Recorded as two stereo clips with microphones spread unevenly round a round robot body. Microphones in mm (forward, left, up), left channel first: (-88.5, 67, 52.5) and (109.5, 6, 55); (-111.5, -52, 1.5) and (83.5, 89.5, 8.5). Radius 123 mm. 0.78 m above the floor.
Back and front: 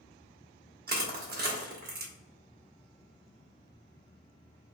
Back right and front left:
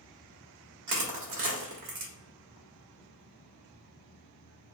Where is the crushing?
25° left, 1.4 m.